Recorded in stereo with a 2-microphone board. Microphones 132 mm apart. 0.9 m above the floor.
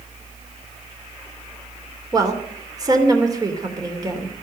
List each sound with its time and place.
2.1 s a woman speaking: 30° right (ahead or behind), 2.5 m